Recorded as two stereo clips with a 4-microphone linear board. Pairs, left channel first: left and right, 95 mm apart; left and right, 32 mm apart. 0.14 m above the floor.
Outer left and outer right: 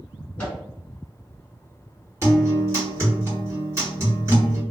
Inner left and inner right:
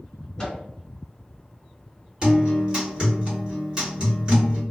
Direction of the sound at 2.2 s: 30° right (ahead or behind).